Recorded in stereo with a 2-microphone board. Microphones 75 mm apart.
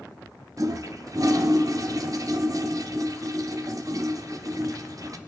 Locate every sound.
0.6 s a toilet flushing: 50° right (ahead or behind), 0.6 m